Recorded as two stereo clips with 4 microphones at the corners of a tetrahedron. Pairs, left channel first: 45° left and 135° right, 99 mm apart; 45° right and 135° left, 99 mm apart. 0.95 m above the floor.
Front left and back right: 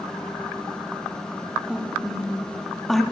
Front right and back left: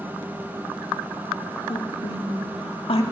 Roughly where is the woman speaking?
Ahead right.